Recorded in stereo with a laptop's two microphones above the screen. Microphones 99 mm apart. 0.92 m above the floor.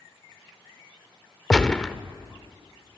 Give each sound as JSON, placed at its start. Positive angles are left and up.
{"t": 1.5, "sound": "a gunshot", "side_deg": 10, "distance_m": 0.6}